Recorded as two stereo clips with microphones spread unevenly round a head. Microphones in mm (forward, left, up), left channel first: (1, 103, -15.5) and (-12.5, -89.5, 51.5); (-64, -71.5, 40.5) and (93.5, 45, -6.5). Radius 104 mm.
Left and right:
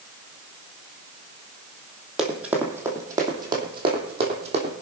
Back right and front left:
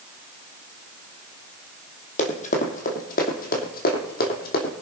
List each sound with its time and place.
2.2 s running footsteps: 160° right, 2 m; by 4.7 s 125° right, 3 m